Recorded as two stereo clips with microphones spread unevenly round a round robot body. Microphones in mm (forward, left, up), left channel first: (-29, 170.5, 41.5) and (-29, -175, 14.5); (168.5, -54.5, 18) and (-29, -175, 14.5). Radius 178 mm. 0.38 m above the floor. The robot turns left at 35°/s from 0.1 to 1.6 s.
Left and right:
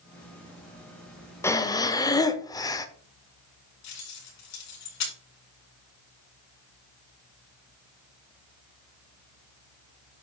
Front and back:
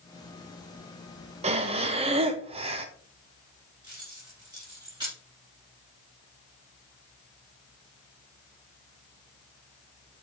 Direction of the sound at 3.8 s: 135° left.